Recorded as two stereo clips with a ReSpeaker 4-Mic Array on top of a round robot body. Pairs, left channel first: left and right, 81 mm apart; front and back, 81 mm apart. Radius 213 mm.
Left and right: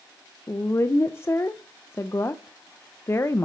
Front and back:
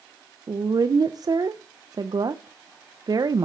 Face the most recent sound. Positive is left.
turn(degrees=150)